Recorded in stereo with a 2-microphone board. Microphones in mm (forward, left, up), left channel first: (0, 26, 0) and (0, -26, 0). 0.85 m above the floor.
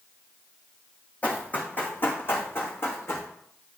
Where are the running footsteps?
25° left (ahead or behind), 2.5 m; by 3.3 s 55° left (ahead or behind), 3 m.